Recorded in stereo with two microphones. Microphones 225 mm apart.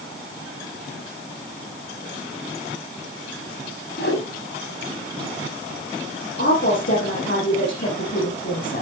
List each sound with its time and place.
4.0 s a whoosh: 50° left (ahead or behind), 7.5 m
6.4 s a woman speaking: 50° left (ahead or behind), 6.5 m